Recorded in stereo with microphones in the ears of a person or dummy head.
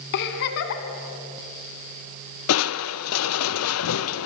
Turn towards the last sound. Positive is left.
turn(degrees=75)  # may be behind; listen again after turning